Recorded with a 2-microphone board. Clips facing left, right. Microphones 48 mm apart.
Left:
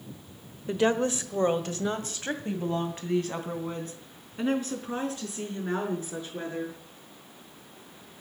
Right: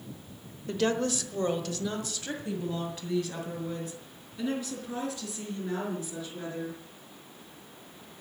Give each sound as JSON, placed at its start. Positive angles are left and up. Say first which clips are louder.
{"t": 0.7, "sound": "a woman speaking", "louder": "left 3 dB", "side_deg": 20, "distance_m": 1.0}